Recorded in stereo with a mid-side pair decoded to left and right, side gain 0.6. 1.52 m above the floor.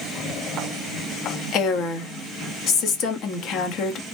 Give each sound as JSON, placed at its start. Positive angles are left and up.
{"t": 1.5, "sound": "a woman speaking", "azimuth_deg": 60, "distance_m": 0.9}